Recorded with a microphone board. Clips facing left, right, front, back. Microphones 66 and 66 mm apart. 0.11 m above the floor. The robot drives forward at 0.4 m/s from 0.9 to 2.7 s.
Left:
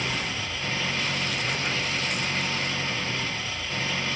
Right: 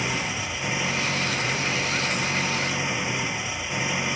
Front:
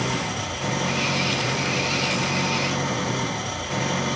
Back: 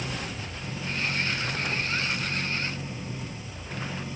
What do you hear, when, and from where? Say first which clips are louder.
0.0 s an engine running: right 2 dB, front 8 dB; 15° right